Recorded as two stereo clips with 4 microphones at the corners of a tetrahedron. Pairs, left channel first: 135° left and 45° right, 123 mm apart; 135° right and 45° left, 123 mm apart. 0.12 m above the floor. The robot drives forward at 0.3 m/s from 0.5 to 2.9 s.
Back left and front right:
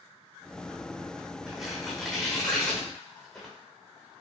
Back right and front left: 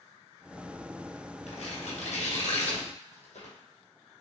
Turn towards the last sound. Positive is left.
turn(degrees=-145)